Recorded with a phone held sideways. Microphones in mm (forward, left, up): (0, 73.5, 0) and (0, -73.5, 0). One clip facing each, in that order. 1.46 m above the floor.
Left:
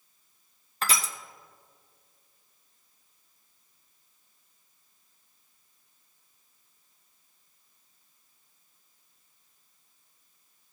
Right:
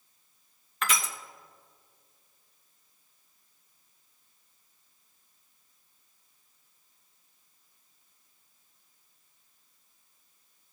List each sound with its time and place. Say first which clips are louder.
0.8 s crushing: even; 35° left (ahead or behind), 0.8 m